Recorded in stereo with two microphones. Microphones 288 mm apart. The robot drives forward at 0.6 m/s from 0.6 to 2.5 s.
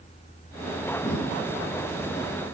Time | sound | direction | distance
1.0 | breathing | 20° left (ahead or behind) | 1.1 m